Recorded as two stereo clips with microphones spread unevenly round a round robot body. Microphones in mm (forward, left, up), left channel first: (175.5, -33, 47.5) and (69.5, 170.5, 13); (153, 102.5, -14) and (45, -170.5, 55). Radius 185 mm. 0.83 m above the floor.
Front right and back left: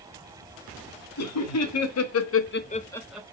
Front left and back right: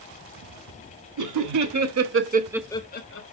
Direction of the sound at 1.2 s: 90° right.